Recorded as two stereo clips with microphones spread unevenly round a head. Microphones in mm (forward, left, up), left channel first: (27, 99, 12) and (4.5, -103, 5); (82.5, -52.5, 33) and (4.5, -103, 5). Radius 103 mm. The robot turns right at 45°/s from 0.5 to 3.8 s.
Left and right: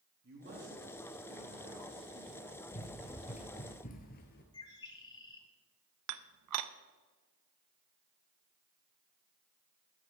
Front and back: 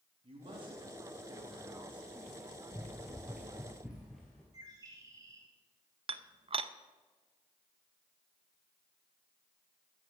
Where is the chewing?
I don't hear chewing.